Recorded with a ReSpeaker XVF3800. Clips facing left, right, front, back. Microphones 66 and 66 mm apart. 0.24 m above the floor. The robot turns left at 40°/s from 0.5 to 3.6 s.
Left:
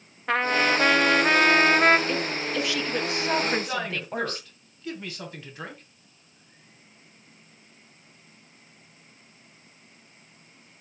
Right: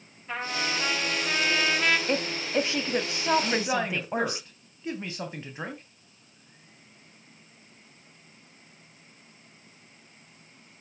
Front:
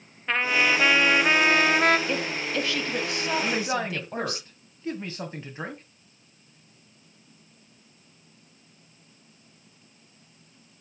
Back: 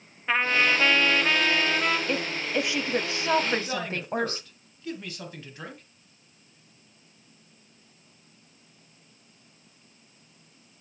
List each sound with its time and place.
0.3 s a trumpet: 95° left, 0.9 m; by 2.0 s 35° left, 0.9 m
2.1 s a woman speaking: 95° right, 1.4 m; by 4.4 s 155° right, 1.4 m
3.4 s a man speaking: 35° right, 2.0 m; by 5.8 s 40° right, 2.0 m